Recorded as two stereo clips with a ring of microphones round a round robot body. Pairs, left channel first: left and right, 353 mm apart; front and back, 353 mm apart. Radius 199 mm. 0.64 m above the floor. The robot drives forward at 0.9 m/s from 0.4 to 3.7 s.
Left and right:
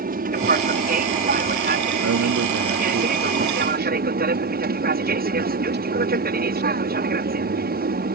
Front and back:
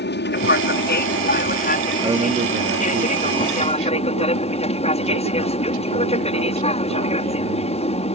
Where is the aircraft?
40° right; by 8.2 s 55° right.